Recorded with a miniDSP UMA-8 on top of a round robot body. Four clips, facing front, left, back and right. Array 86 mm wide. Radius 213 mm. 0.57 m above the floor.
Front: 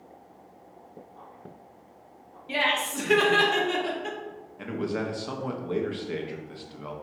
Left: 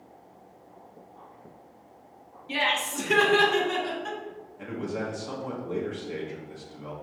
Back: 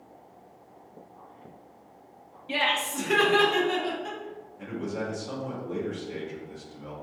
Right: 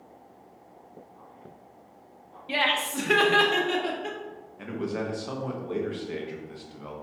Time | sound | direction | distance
2.5 | laughter | 105° right | 1.2 m
4.6 | a man speaking | 25° right | 1.0 m